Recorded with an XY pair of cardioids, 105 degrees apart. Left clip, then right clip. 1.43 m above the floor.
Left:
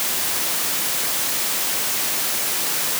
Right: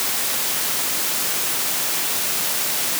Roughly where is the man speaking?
I don't hear a man speaking.